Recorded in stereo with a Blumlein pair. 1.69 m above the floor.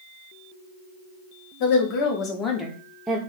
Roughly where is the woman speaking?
Ahead left.